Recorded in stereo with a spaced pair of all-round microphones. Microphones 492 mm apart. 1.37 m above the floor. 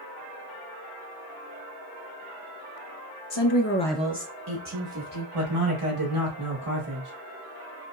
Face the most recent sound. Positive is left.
turn(degrees=-75)  # may be behind; listen again after turning